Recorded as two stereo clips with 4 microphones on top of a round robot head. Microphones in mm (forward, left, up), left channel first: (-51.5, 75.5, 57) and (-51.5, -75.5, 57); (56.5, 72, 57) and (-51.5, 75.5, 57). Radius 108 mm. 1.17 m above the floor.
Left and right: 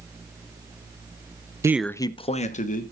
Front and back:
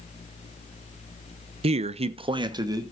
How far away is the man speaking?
About 0.7 m.